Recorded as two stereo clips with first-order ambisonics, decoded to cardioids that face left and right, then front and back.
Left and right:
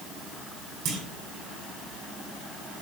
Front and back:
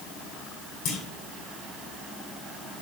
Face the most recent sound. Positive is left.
turn(degrees=-45)